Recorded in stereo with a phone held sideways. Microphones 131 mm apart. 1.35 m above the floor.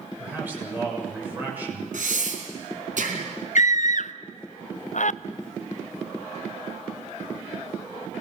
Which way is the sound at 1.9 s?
75° right (ahead or behind).